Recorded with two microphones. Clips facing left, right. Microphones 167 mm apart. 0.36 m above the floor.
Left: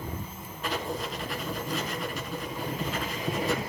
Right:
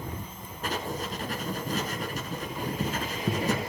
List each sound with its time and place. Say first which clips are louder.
0.6 s writing: left 1 dB; 45° right (ahead or behind), 1.5 m